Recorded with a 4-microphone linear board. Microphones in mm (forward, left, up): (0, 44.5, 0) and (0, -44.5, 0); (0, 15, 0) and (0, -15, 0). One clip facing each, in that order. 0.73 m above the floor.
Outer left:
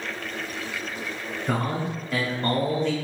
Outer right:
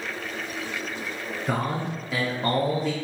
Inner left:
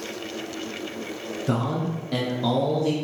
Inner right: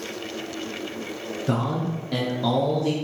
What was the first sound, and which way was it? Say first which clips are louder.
A man speaking: outer left 1 dB, even; 5° right (ahead or behind).